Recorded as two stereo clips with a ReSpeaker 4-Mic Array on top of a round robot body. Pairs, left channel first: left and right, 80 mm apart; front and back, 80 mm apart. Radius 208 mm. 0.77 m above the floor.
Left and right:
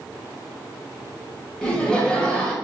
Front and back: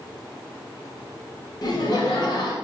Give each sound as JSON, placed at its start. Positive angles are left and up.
{"t": 1.6, "sound": "laughter", "azimuth_deg": 10, "distance_m": 1.1}